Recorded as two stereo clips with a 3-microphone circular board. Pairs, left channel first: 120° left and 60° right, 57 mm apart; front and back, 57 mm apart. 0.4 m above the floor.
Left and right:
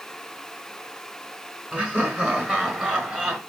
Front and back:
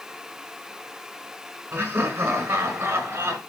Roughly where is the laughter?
Behind right.